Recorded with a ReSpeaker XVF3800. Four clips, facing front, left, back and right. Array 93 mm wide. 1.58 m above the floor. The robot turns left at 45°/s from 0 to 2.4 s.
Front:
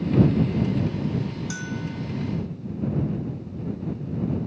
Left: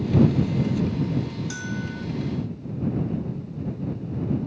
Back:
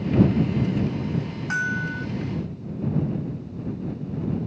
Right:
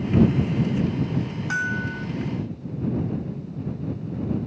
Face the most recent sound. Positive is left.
turn(degrees=-170)